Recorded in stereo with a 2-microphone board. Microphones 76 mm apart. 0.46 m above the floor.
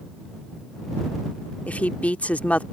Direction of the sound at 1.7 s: 20° left (ahead or behind).